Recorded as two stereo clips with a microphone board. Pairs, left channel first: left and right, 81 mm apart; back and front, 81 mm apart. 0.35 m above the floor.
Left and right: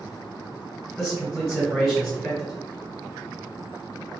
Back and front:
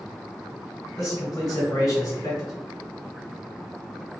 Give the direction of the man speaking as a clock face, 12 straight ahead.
6 o'clock.